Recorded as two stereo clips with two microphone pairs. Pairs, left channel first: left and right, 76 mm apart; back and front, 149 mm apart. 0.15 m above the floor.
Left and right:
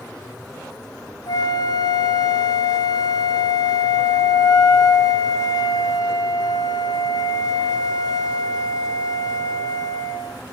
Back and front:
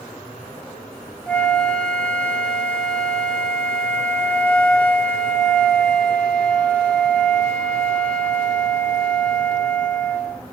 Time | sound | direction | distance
1.3 | a flute | 100° left | 1.0 m